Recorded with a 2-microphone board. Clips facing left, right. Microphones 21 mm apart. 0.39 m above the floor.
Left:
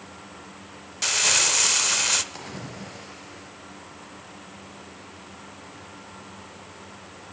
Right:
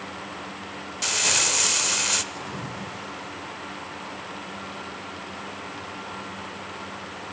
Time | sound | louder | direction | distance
1.0 | crumpling | left 1 dB | 10° left (ahead or behind) | 0.7 m
2.3 | a splash | right 4 dB | 45° left (ahead or behind) | 2.5 m